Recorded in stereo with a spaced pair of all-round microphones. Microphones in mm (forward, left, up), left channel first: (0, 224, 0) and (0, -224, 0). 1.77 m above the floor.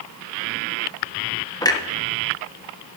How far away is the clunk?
About 0.9 m.